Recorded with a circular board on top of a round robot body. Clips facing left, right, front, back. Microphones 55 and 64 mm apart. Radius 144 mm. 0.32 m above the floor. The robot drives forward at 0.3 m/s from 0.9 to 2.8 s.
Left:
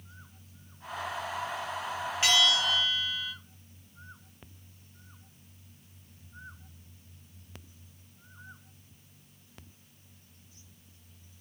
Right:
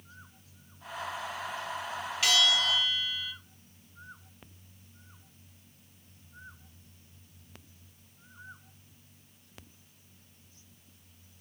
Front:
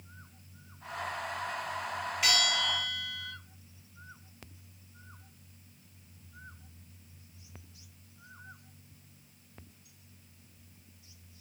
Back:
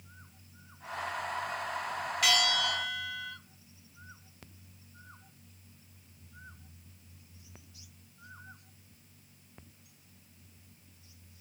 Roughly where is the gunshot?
I don't hear a gunshot.